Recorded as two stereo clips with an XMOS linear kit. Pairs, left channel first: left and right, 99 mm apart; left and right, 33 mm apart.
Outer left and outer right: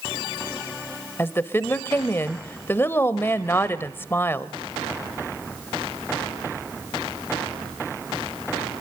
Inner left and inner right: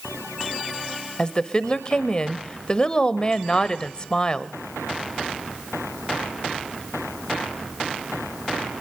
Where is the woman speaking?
25° left (ahead or behind), 0.9 m.